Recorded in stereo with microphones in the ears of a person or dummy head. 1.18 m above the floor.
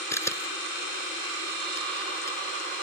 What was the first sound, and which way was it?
A camera shutter, 10° left (ahead or behind).